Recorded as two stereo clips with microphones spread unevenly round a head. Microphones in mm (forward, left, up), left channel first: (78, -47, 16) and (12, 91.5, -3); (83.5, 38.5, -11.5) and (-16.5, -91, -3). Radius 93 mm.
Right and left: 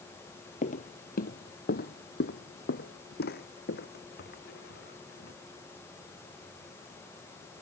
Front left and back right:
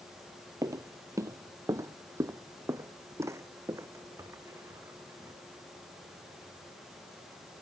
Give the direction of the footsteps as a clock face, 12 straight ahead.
2 o'clock.